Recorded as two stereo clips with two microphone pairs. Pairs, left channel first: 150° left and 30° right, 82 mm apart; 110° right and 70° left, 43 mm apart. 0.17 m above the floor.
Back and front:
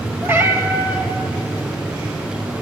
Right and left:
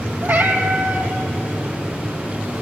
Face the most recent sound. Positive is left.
turn(degrees=35)